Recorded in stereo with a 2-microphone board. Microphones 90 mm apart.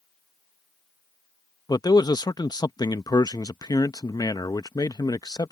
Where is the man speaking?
50° left (ahead or behind).